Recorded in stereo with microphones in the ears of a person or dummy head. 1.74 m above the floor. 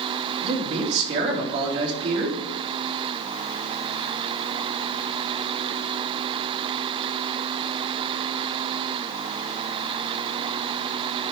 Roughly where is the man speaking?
Right.